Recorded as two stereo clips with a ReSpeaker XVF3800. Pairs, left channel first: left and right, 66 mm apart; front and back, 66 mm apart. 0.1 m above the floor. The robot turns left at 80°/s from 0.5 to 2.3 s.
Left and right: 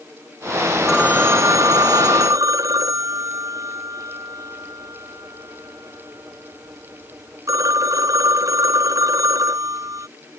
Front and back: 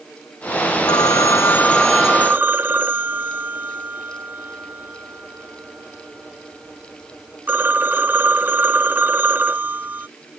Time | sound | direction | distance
0.9 | a phone ringing | 5° right | ?